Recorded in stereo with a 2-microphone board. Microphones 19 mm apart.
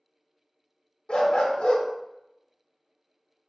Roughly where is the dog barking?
Left.